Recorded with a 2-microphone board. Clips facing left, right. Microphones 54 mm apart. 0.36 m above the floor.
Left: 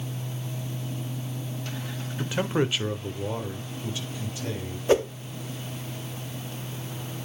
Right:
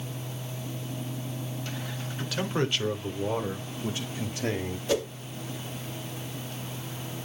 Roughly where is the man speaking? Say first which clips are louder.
Left 3 dB; left.